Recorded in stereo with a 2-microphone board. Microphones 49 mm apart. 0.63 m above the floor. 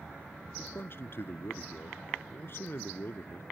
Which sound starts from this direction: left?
A man speaking, at 0.6 s.